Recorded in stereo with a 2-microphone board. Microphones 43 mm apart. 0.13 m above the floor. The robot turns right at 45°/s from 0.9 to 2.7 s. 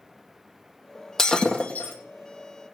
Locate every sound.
1.2 s breaking glass: 10° left, 2.5 m; by 1.9 s 45° left, 2.5 m